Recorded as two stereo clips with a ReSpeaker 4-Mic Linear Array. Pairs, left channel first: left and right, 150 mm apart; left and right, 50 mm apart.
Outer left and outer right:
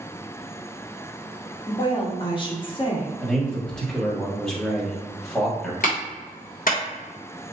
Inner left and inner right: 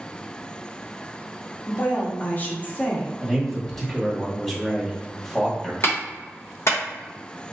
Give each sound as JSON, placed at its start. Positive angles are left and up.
{"t": 1.7, "sound": "a woman speaking", "side_deg": 35, "distance_m": 0.9}
{"t": 3.2, "sound": "a man speaking", "side_deg": 5, "distance_m": 1.4}
{"t": 5.8, "sound": "a clap", "side_deg": 65, "distance_m": 1.2}